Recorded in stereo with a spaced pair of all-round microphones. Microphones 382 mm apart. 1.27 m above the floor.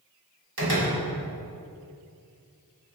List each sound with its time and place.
0.6 s a door slam: 80° right, 4 m